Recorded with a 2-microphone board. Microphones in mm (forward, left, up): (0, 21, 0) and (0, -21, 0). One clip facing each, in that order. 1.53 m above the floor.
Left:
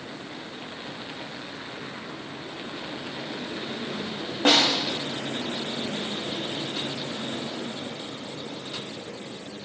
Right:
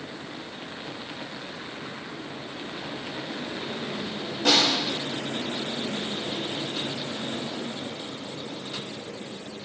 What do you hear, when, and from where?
4.5 s a snare drum: 40° left (ahead or behind), 3 m